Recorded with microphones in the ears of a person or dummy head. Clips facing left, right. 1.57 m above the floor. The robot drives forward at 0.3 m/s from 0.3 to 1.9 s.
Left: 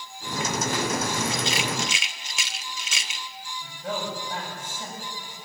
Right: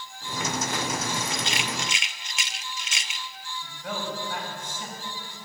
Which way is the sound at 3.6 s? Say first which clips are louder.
Left 2 dB; 25° left (ahead or behind).